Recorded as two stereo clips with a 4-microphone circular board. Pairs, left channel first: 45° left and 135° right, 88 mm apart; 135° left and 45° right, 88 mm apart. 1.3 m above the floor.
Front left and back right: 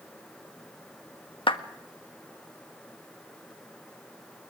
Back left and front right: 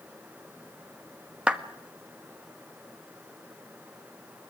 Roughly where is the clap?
Ahead left.